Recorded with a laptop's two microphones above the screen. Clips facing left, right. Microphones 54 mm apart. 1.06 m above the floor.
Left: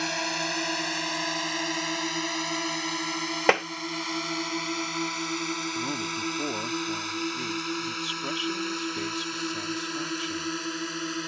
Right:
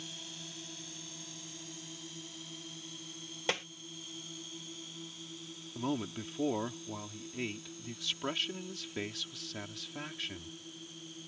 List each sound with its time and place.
0.0 s a drone: 85° left
3.5 s tapping: 60° left (ahead or behind)
5.8 s a man speaking: centre (ahead or behind)